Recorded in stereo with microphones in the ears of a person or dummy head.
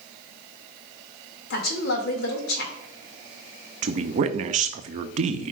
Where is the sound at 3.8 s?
40° right (ahead or behind), 0.6 m.